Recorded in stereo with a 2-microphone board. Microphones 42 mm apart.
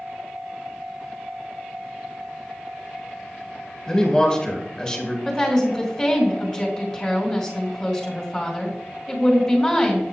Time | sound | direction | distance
3.9 | a man speaking | 15° left (ahead or behind) | 2.5 m
5.2 | a woman speaking | 10° left (ahead or behind) | 2 m